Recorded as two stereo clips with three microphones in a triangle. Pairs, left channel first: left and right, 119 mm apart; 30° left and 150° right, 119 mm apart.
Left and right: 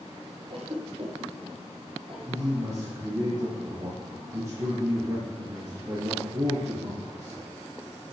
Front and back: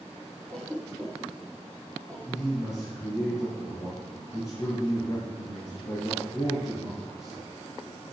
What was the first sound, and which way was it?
A cough, 50° right.